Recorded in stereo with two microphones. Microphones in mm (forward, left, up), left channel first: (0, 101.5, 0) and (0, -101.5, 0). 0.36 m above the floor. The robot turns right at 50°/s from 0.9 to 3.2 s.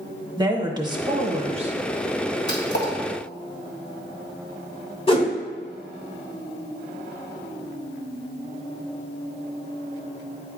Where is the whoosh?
30° left (ahead or behind), 1.1 m.